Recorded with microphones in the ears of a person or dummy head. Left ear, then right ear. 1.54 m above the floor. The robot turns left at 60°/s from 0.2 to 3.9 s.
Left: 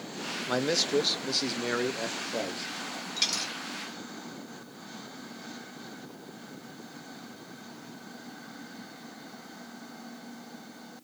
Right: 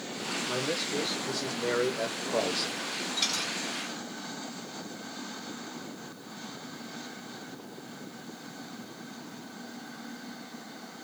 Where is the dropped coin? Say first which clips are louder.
Left 1 dB; 60° left (ahead or behind), 1.6 m.